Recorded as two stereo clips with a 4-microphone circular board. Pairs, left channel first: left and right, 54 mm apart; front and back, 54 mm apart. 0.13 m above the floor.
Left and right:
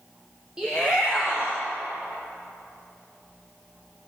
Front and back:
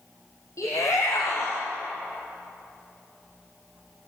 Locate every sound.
0.6 s a shout: 15° right, 4.5 m; by 1.6 s 25° right, 5 m